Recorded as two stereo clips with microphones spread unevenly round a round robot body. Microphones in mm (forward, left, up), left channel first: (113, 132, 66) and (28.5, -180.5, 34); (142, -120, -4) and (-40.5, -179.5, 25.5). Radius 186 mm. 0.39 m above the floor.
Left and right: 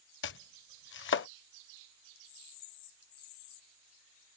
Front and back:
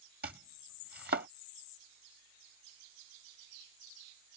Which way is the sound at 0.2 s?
135° left.